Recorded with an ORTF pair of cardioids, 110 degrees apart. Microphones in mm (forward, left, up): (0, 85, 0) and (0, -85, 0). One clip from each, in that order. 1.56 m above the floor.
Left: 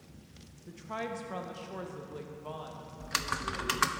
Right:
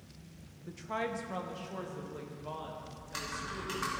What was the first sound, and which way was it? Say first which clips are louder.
A woman speaking: right 2 dB; 15° right.